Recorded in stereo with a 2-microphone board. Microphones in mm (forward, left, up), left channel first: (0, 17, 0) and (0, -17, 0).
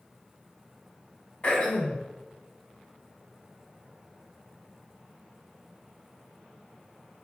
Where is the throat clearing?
30° left (ahead or behind), 2.5 m.